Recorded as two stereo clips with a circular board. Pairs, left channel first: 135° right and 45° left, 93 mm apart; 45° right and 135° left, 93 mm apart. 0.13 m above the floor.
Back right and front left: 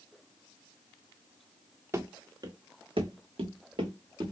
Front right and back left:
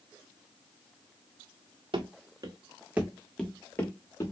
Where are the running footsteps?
105° left, 0.7 m; by 4.3 s 10° left, 1.0 m.